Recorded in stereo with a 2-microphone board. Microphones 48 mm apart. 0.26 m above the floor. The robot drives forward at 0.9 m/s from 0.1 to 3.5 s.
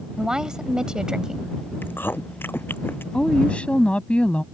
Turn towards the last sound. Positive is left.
turn(degrees=25)  # may be behind; listen again after turning